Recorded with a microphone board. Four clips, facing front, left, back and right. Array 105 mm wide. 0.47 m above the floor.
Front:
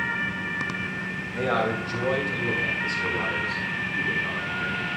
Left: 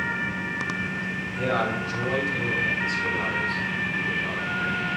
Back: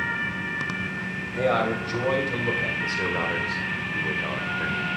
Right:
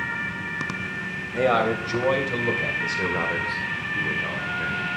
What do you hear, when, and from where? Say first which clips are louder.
1.3 s a man speaking: right 5 dB, back 2 dB; 100° right, 2 m; by 4.9 s straight behind, 1.5 m